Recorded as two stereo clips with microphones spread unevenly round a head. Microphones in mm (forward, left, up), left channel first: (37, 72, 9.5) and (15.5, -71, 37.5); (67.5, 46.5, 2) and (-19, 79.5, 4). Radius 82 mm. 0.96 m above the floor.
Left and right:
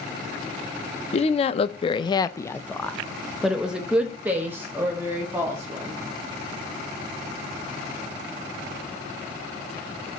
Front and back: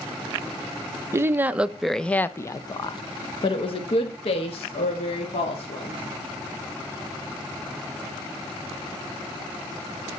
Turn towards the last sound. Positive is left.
turn(degrees=-25)